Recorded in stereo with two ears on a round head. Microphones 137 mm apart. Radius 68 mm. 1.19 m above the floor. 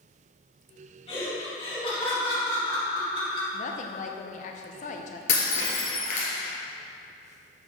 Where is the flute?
I don't hear a flute.